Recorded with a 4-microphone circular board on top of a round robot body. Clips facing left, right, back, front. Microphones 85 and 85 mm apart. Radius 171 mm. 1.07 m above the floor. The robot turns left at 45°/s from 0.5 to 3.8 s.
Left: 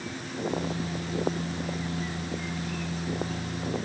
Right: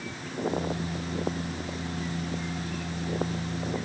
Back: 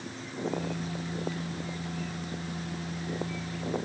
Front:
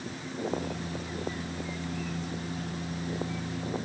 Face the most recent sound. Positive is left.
No sound to turn to.